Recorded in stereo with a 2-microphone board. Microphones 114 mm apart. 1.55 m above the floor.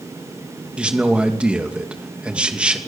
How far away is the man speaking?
About 2.5 m.